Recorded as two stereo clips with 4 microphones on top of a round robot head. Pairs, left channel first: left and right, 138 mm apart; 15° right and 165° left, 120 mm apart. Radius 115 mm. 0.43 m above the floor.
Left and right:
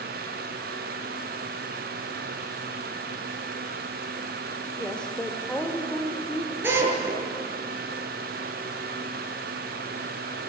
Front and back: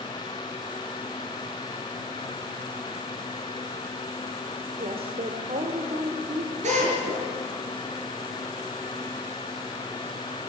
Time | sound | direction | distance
4.8 | a woman speaking | 170° left | 2 m
6.6 | a drill | 165° right | 7.5 m